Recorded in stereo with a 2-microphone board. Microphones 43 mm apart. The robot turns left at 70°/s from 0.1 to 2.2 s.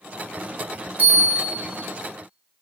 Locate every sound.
1.0 s a bell: 125° right, 0.8 m; by 1.7 s 175° right, 0.8 m